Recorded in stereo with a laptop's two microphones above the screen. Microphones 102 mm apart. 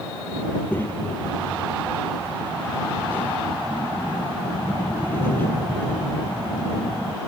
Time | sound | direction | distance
0.5 | a child speaking | 20° left (ahead or behind) | ?